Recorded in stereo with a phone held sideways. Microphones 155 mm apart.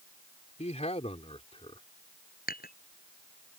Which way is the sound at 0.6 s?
45° left (ahead or behind).